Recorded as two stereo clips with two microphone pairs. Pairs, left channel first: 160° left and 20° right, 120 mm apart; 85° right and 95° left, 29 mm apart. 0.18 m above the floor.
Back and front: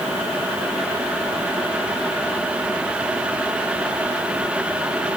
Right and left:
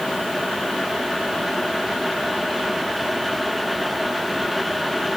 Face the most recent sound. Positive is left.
No sound to turn to.